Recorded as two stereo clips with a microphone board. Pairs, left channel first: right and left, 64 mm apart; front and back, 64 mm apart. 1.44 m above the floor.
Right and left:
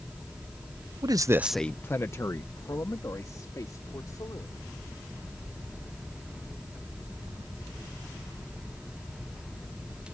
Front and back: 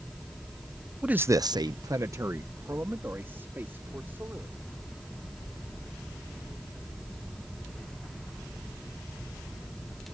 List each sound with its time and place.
1.0 s a man speaking: 105° left; by 4.7 s 120° right